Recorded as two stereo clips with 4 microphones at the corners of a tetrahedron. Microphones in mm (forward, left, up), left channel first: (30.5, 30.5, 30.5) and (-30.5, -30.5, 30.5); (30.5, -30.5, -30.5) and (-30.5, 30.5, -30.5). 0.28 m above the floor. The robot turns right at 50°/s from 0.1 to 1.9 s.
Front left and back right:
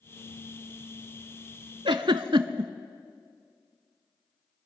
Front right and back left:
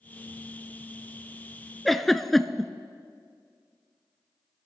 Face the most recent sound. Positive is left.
turn(degrees=-135)